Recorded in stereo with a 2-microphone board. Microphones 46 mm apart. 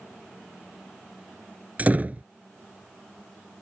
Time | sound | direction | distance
1.8 | a door slam | 35° right (ahead or behind) | ?